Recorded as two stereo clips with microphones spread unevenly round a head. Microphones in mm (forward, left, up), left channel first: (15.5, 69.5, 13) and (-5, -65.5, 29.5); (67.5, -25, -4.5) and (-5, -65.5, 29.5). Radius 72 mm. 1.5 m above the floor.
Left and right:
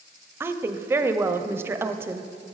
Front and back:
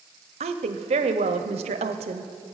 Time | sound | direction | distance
0.4 | a woman speaking | 175° right | 0.5 m